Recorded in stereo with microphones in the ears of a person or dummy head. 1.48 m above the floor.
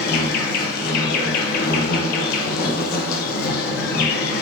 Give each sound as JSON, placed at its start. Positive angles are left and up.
{"t": 0.0, "sound": "an insect", "side_deg": 55, "distance_m": 0.9}